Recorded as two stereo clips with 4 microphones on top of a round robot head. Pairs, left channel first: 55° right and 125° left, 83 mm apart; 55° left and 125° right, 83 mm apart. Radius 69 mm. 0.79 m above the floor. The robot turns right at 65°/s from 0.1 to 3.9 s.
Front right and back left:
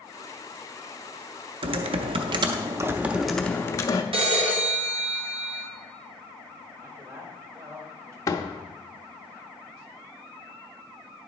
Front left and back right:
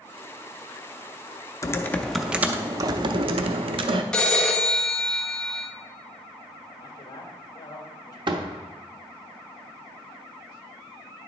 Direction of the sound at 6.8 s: 80° left.